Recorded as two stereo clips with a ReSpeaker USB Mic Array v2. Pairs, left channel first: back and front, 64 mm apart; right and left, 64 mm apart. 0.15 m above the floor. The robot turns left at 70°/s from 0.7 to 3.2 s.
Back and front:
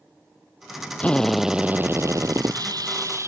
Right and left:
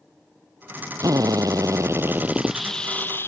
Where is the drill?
110° left; by 3.3 s 40° right.